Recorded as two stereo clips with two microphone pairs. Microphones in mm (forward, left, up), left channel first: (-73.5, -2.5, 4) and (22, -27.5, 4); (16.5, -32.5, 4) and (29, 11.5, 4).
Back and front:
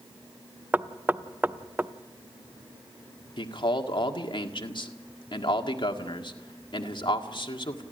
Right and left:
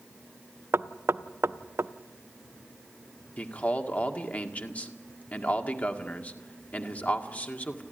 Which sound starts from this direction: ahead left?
Knocking, at 0.7 s.